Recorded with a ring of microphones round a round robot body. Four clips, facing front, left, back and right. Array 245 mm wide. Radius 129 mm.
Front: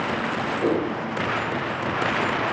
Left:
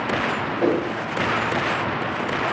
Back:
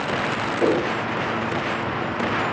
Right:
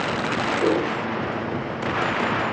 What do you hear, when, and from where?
0.6 s a whoosh: 140° left, 3.5 m